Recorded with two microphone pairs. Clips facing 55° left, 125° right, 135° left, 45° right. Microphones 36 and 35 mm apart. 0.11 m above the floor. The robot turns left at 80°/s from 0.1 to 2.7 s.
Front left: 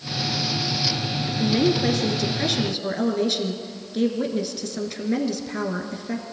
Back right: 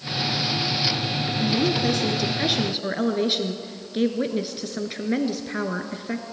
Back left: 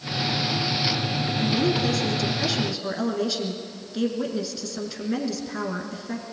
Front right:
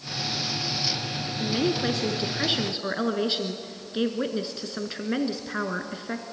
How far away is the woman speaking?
About 1.5 m.